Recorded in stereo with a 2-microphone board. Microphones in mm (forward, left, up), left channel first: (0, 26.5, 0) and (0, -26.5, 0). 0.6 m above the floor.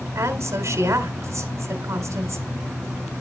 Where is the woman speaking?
70° right (ahead or behind), 1.8 m.